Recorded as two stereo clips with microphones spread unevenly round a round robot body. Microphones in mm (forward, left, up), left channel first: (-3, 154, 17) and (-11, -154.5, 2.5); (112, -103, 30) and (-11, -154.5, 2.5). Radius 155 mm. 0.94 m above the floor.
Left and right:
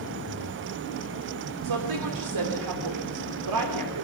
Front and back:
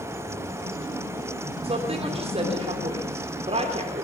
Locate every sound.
1.6 s a woman speaking: 115° right, 3.5 m